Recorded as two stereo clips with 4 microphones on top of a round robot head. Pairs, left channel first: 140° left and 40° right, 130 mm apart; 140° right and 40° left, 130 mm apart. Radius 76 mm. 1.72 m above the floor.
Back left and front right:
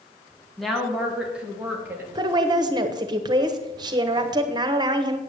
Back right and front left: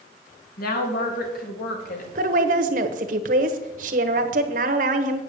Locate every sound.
0.6 s a woman speaking: 135° right, 2 m; by 2.0 s 115° right, 2.5 m
2.1 s a woman speaking: 15° left, 1.1 m